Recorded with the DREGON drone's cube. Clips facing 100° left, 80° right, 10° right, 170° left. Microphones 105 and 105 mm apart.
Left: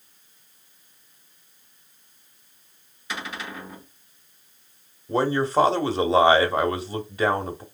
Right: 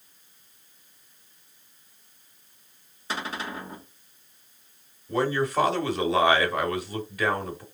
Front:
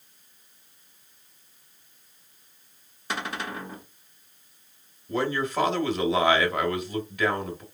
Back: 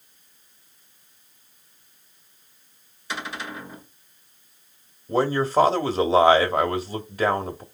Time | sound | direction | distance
3.1 | a cupboard door | 35° right | 1.4 m
5.1 | a man speaking | 140° left | 0.8 m